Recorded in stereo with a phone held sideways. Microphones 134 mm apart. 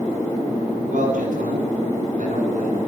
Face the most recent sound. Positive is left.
turn(degrees=-85)